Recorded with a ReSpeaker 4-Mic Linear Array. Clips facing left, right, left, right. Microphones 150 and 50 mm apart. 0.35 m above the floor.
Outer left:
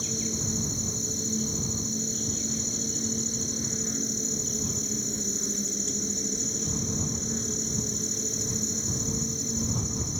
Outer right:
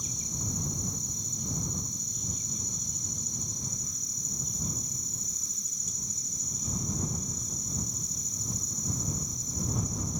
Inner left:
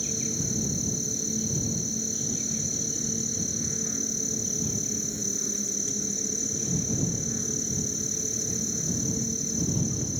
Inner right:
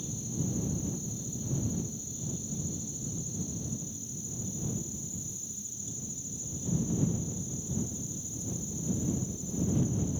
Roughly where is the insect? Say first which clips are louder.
Outer left 9 dB, inner left 3 dB; left.